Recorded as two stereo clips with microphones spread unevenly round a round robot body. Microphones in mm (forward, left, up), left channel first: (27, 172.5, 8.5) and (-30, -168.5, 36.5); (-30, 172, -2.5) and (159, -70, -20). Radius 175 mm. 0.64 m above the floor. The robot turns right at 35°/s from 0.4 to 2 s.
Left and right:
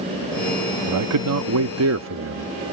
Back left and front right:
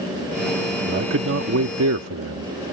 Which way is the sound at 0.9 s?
95° right.